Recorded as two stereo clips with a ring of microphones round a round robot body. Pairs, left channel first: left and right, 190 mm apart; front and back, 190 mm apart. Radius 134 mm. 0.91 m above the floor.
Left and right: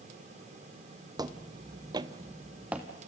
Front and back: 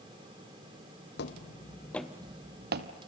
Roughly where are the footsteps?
Ahead right.